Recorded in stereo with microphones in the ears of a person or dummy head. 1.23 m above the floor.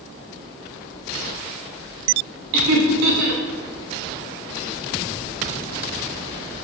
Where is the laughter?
70° right (ahead or behind), 1.4 m.